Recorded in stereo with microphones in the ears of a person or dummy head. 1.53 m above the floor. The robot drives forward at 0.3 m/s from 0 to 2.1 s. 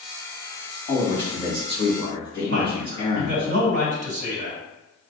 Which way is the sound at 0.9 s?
35° left (ahead or behind).